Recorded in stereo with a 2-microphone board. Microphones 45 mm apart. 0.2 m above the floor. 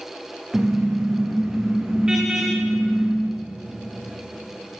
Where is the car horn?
15° right (ahead or behind), 7.5 m.